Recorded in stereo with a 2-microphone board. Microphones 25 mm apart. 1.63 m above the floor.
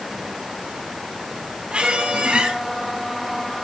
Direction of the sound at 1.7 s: 60° right (ahead or behind).